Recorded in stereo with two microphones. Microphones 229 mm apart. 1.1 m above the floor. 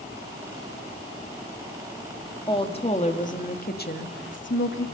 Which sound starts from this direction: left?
A woman speaking, at 2.5 s.